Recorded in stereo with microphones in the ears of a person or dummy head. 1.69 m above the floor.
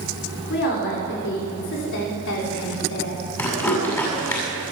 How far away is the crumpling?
About 7 m.